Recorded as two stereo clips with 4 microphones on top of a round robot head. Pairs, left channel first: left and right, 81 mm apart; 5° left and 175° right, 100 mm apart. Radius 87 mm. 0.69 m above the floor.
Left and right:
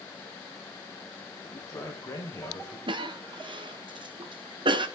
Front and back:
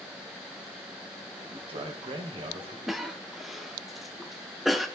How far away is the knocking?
No knocking in this recording.